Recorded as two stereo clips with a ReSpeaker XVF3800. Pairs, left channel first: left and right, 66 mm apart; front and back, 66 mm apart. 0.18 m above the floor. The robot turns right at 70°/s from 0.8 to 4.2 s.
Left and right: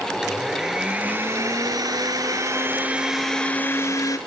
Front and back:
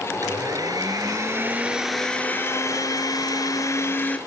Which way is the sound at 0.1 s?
170° right.